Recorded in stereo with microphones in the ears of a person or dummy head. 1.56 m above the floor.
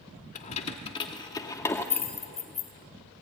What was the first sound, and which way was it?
Keys jangling, 45° left (ahead or behind).